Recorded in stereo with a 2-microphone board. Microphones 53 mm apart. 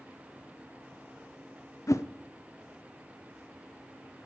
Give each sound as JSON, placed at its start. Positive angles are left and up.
{"t": 1.9, "sound": "a whoosh", "side_deg": 75, "distance_m": 0.6}